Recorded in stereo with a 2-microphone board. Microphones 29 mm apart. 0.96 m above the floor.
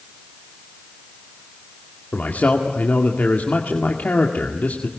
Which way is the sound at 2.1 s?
70° left (ahead or behind).